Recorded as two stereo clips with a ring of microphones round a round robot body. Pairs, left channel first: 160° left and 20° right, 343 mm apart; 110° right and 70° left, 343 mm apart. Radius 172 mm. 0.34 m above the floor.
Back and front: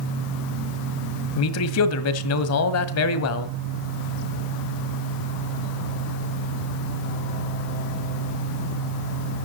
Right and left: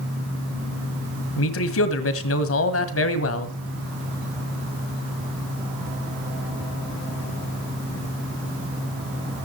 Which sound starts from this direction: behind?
A man speaking, at 1.4 s.